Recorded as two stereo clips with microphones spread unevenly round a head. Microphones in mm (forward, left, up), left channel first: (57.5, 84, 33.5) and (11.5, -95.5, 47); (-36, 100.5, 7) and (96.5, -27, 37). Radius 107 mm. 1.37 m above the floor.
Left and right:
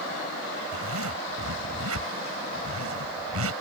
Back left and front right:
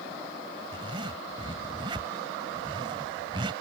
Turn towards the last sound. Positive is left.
turn(degrees=-115)